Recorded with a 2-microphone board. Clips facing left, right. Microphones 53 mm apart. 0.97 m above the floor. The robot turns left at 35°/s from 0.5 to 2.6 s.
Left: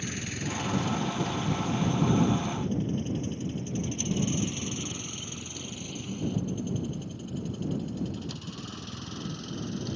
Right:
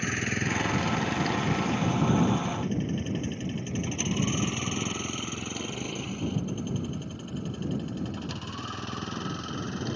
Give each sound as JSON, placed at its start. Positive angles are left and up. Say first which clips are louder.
{"t": 0.0, "sound": "a vehicle", "louder": "right 6 dB", "side_deg": -50}